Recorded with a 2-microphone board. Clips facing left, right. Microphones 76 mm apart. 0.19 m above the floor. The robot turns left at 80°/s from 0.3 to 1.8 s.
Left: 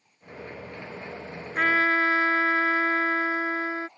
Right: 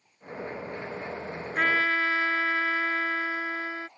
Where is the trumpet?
5° left (ahead or behind); by 3.9 s 20° left (ahead or behind).